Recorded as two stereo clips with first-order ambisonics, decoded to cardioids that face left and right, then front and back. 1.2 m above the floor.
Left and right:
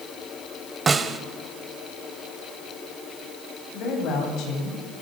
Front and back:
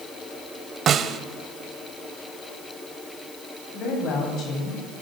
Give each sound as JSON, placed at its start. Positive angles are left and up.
{"t": 0.9, "sound": "a snare drum", "azimuth_deg": -150, "distance_m": 1.1}
{"t": 3.7, "sound": "a woman speaking", "azimuth_deg": 50, "distance_m": 9.0}